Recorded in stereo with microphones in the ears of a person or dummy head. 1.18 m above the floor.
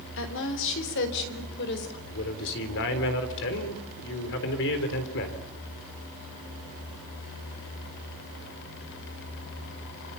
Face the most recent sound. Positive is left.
turn(degrees=65)  # may be behind; listen again after turning